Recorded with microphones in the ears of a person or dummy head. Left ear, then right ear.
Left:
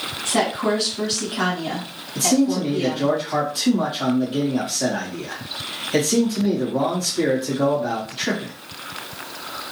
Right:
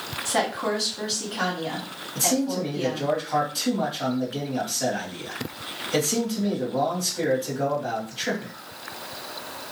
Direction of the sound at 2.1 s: Centre (ahead or behind).